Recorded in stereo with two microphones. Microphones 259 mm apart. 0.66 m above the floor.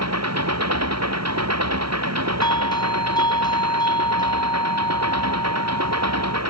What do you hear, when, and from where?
0.0 s an engine running: 80° right
2.4 s a doorbell: 15° left (ahead or behind)